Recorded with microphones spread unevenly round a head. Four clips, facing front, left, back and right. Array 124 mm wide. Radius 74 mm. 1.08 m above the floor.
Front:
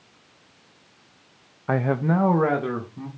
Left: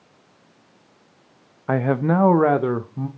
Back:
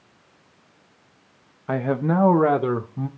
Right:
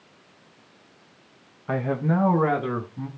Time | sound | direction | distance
1.7 | a man speaking | 75° left | 0.6 m